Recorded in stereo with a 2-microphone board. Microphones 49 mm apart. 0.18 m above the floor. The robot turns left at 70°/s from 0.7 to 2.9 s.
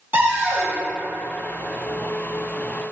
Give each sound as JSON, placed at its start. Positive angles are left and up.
{"t": 0.1, "sound": "a cupboard door", "side_deg": -40, "distance_m": 1.0}